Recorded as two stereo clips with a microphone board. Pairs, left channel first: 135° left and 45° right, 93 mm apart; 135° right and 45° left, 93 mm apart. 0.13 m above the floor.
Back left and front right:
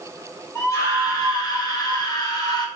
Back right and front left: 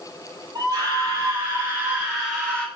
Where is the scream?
80° left, 2.5 m; by 2.7 s 150° left, 2 m.